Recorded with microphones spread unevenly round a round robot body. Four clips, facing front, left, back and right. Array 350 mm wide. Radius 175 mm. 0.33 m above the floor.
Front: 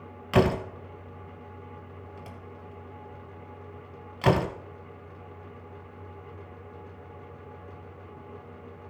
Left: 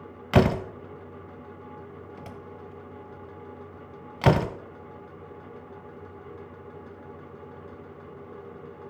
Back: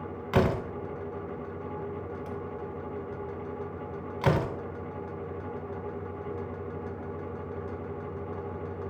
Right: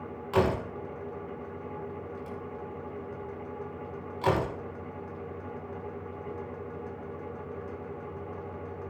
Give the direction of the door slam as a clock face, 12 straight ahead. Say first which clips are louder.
Left 4 dB, front 3 dB; 9 o'clock.